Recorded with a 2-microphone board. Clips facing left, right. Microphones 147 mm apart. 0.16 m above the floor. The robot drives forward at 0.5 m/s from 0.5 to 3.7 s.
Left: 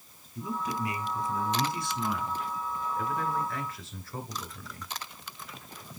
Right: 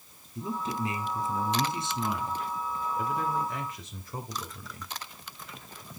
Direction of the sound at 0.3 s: 25° right (ahead or behind).